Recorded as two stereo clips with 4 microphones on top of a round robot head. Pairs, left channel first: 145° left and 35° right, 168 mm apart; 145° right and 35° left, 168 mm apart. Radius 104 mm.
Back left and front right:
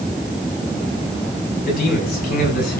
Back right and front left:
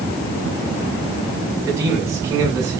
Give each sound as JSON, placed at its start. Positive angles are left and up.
{"t": 1.7, "sound": "a man speaking", "azimuth_deg": 110, "distance_m": 7.0}